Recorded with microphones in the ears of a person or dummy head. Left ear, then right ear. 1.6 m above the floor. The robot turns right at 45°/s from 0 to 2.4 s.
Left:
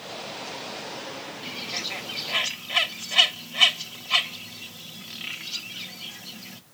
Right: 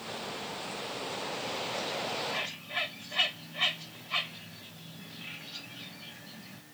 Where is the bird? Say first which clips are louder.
Left 6 dB; 45° left (ahead or behind), 0.8 m; by 6.6 s 85° left, 0.8 m.